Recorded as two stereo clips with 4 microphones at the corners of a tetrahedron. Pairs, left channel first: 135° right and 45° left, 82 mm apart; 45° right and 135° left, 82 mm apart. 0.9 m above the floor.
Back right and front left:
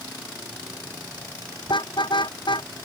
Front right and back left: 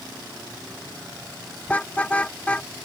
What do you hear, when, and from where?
1.7 s a car horn: 120° right